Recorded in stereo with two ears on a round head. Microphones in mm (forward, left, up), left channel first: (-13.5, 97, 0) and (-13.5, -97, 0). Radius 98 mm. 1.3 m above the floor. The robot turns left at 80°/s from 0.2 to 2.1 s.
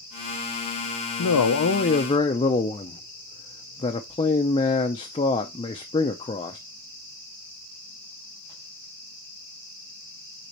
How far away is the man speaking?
About 0.5 m.